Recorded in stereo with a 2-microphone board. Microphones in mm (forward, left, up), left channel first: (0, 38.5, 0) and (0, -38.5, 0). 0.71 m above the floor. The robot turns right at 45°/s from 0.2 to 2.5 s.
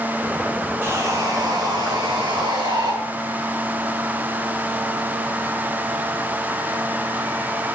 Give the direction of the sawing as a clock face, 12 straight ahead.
5 o'clock.